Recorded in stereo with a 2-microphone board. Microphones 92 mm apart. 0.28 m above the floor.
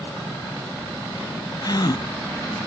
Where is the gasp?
45° left (ahead or behind), 0.8 m.